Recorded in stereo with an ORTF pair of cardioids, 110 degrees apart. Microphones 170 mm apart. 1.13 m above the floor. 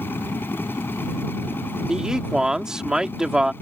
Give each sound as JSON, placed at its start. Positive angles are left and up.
{"t": 0.0, "sound": "a machine running", "azimuth_deg": 15}
{"t": 1.9, "sound": "a man speaking", "azimuth_deg": -5}